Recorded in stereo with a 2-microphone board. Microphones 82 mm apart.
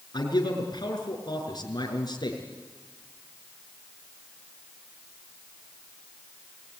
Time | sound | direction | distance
0.1 | a man speaking | 55° left (ahead or behind) | 6 m